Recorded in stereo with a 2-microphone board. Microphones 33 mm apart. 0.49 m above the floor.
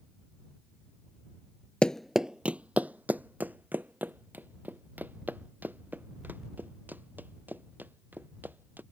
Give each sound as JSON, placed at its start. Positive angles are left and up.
{"t": 1.8, "sound": "running footsteps", "side_deg": 35}